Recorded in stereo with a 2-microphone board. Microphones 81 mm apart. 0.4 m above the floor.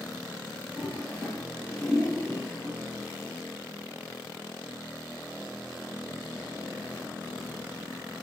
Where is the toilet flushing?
Centre (ahead or behind), 1.2 m.